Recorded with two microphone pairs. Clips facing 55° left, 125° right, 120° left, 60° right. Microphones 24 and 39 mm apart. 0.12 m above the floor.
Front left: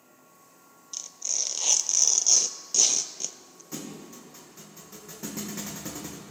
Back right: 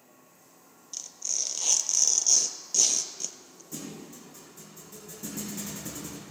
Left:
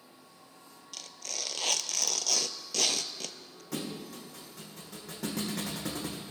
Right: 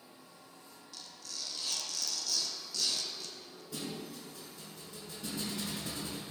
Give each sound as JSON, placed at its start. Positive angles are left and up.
{"t": 0.9, "sound": "tearing paper", "azimuth_deg": 125, "distance_m": 0.6}
{"t": 3.7, "sound": "a thud", "azimuth_deg": 105, "distance_m": 3.0}